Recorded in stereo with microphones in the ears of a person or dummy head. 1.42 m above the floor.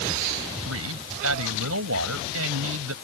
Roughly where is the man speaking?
Right.